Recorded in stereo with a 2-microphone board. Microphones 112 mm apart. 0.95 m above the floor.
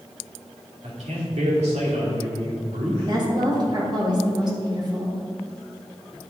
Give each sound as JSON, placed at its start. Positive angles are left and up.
{"t": 0.8, "sound": "a man speaking", "side_deg": -80, "distance_m": 2.0}
{"t": 3.0, "sound": "a woman speaking", "side_deg": -40, "distance_m": 2.0}